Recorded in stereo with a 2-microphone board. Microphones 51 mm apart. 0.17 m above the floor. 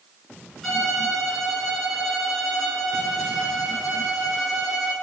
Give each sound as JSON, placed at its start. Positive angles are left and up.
{"t": 0.6, "sound": "a violin", "side_deg": 5, "distance_m": 1.8}